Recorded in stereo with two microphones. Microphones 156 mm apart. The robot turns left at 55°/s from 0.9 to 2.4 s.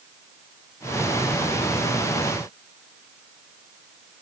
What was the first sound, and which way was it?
Only background noise.